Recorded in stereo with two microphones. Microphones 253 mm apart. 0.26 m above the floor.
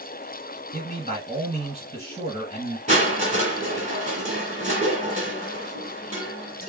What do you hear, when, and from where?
0.7 s a man speaking: 25° right (ahead or behind), 4 m
2.9 s crushing: 30° right (ahead or behind), 2.5 m